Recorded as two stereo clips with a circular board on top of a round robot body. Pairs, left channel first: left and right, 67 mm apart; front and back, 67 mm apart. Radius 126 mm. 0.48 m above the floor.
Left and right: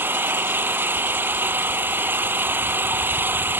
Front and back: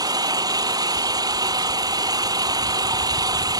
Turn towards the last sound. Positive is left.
turn(degrees=-150)